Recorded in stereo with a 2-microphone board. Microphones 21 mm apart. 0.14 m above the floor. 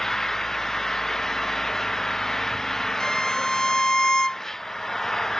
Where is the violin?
25° left (ahead or behind).